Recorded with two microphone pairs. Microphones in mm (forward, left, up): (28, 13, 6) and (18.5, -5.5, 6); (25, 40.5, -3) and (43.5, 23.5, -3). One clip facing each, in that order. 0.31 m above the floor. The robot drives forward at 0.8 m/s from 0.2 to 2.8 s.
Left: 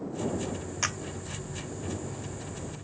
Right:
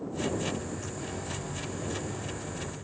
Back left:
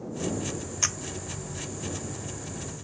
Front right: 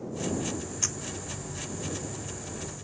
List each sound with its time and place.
0.8 s a camera shutter: 70° left; by 1.0 s 75° left